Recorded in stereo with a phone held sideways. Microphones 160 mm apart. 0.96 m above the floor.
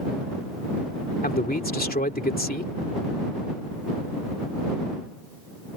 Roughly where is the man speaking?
Left.